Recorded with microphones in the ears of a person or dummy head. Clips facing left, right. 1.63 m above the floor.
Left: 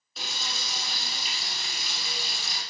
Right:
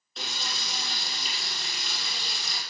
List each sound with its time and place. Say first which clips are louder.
0.2 s frying: right 1 dB; 5° left (ahead or behind), 3.5 m